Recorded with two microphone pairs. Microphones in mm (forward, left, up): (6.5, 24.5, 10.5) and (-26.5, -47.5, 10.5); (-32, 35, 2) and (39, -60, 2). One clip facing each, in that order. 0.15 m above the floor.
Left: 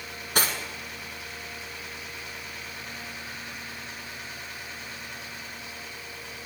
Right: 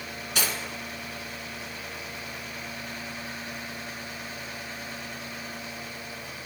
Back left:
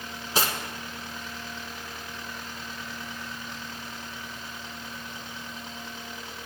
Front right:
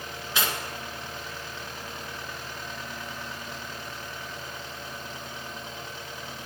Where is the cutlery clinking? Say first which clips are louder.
Left 3 dB, back left 2 dB; 90° left, 1.0 m.